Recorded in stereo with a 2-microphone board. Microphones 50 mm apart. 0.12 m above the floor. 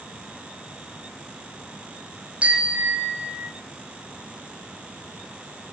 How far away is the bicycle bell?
About 3.5 m.